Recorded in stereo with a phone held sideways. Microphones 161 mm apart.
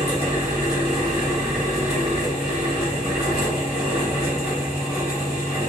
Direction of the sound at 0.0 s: 40° left (ahead or behind).